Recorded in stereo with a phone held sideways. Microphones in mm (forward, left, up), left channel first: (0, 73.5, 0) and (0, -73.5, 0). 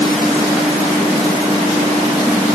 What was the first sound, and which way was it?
Only background noise.